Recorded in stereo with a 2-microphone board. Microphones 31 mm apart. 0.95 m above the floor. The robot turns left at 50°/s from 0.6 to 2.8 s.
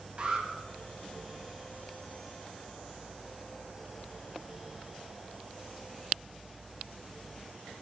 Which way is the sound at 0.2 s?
35° right (ahead or behind).